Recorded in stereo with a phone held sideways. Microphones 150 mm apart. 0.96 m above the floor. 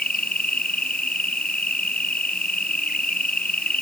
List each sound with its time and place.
0.0 s an insect: 80° left